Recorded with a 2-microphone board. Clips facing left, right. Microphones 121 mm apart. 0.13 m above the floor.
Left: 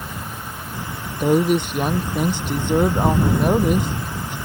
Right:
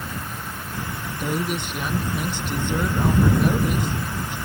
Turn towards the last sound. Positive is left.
turn(degrees=55)  # may be behind; listen again after turning